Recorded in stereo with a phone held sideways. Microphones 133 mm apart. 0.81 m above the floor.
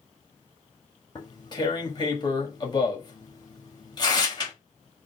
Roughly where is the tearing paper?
Left.